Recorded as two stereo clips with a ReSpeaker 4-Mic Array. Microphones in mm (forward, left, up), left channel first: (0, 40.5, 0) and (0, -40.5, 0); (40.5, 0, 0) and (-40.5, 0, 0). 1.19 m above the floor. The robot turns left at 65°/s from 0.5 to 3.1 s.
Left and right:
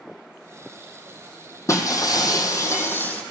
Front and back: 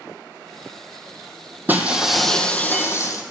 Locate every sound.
1.7 s breaking glass: 125° left, 1.7 m; by 3.2 s 30° left, 1.7 m